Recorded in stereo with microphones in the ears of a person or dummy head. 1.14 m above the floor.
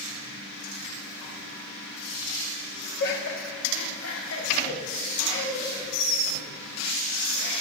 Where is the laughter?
55° left (ahead or behind), 1.9 m; by 6.5 s 50° left (ahead or behind), 5 m.